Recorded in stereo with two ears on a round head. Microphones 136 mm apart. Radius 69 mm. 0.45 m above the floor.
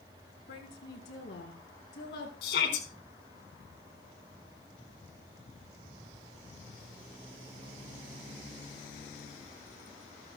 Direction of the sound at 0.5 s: 80° left.